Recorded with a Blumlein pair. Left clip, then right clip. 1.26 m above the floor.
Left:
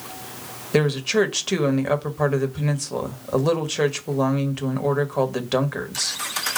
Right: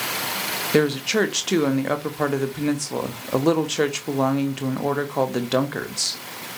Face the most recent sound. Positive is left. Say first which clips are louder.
# left 1 dB
turn(degrees=0)